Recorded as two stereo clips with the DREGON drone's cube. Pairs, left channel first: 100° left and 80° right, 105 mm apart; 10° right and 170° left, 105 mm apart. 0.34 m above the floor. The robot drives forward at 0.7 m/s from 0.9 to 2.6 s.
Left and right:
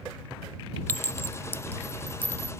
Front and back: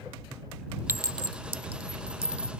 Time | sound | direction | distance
0.9 | a clink | 140° left | ?